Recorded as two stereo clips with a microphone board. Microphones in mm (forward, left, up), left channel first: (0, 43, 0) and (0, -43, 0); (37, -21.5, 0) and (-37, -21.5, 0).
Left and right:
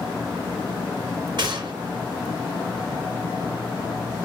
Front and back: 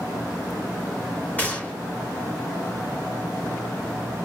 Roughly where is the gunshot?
Ahead right.